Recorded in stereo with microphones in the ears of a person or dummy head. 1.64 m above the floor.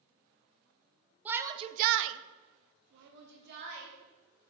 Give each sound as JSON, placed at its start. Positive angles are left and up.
{"t": 1.2, "sound": "a shout", "side_deg": -10, "distance_m": 0.7}